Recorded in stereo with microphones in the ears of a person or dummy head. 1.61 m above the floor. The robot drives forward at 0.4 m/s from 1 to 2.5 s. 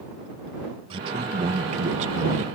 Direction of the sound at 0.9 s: 30° right (ahead or behind).